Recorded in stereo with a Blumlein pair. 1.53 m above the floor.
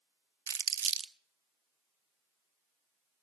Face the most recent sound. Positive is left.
turn(degrees=-65)